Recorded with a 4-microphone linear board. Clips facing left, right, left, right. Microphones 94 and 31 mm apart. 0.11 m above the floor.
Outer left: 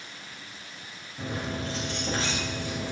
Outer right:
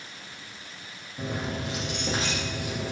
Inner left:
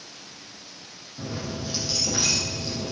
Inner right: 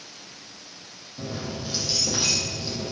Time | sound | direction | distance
1.2 | keys jangling | 15° right (ahead or behind) | 3.5 m